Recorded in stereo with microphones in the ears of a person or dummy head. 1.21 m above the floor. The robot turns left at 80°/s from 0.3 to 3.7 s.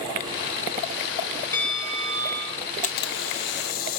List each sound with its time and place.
1.5 s a bell: 15° left, 2.0 m; by 2.6 s 75° right, 2.0 m
2.8 s a camera shutter: 130° left, 0.7 m; by 4.0 s 60° left, 0.7 m